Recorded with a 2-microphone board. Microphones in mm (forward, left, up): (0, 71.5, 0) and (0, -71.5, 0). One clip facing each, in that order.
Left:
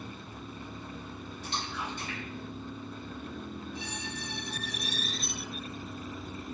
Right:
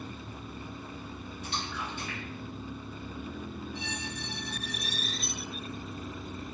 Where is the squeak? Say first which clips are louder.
Right 1 dB; 40° left (ahead or behind), 0.6 m.